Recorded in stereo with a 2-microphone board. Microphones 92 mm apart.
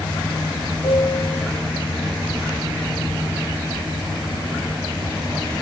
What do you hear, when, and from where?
0.8 s a piano: 70° left (ahead or behind), 4.5 m